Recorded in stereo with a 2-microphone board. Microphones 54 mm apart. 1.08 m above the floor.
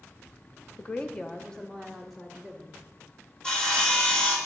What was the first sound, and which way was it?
A woman speaking, 25° left (ahead or behind).